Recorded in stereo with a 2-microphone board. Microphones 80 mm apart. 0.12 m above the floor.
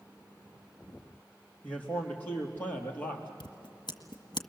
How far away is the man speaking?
About 4 m.